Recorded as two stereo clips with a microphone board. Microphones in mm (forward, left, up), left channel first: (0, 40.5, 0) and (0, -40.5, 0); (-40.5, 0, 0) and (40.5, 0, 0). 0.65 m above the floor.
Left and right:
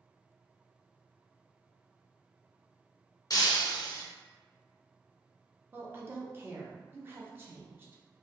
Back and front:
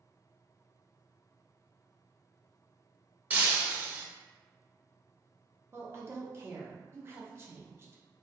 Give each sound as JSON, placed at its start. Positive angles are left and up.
{"t": 3.3, "sound": "breaking glass", "azimuth_deg": 65, "distance_m": 0.5}
{"t": 5.7, "sound": "a woman speaking", "azimuth_deg": -40, "distance_m": 0.6}